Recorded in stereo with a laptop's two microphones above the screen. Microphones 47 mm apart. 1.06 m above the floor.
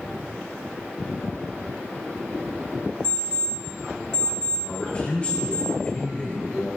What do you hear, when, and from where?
3.0 s an alarm clock: 15° left (ahead or behind), 3.5 m
4.6 s a man speaking: 25° left (ahead or behind), 4.5 m